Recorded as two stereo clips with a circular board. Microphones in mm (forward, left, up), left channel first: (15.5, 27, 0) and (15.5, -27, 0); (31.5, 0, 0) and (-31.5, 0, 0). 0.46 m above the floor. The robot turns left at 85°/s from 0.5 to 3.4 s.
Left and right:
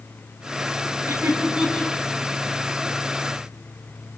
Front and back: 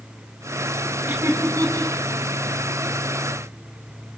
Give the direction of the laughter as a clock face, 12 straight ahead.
4 o'clock.